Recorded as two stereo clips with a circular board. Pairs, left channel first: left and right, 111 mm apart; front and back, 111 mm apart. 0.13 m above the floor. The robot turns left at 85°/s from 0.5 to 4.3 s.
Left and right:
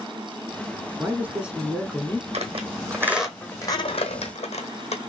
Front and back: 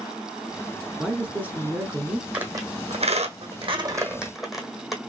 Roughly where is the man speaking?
Right.